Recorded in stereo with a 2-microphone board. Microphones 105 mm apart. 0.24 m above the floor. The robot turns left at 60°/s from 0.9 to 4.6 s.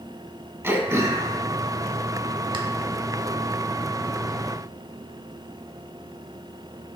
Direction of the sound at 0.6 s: 25° right (ahead or behind).